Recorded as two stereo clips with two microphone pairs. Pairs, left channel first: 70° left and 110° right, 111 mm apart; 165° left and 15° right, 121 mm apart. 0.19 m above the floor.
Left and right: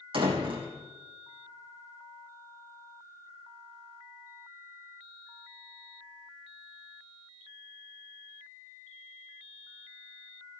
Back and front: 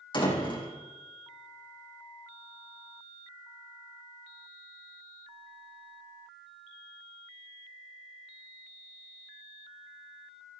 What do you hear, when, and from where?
0.1 s a door slam: 145° right, 5 m